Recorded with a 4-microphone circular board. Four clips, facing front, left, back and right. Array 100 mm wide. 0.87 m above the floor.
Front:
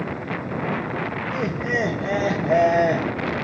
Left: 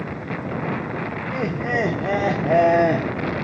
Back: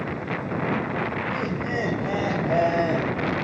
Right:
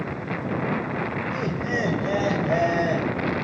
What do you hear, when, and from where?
1.3 s laughter: 80° left, 2.5 m